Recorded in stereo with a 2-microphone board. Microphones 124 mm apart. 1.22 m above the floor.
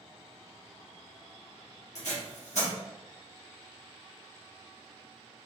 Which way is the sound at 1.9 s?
70° left (ahead or behind).